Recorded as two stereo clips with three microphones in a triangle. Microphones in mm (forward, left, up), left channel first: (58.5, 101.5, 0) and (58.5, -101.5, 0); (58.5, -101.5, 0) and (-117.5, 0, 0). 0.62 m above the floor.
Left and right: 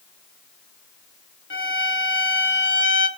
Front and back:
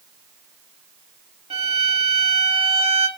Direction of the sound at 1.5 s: 95° left.